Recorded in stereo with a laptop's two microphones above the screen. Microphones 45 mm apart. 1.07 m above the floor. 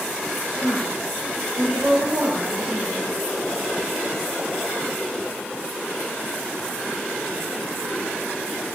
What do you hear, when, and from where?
0.6 s a woman speaking: 70° right (ahead or behind), 3.5 m